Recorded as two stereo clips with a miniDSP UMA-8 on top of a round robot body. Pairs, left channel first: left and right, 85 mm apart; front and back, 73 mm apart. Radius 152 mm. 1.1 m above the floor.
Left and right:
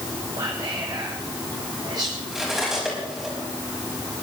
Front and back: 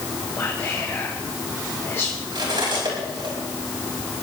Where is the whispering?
55° right, 1.9 m.